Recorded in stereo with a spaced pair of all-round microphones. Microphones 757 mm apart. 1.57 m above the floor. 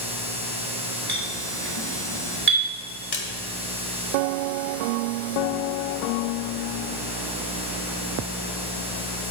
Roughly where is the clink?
Centre.